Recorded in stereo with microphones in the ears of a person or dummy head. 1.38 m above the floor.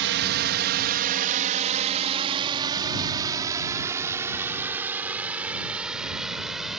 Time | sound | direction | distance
0.0 | a drone | 60° right (ahead or behind) | ?